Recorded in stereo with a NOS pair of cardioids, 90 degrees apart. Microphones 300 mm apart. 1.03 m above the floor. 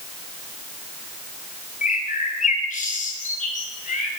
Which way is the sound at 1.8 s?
25° left.